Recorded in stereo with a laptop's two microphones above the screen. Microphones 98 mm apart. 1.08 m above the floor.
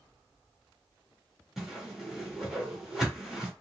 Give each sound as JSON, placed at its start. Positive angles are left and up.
{"t": 1.6, "sound": "a whoosh", "side_deg": -5, "distance_m": 1.7}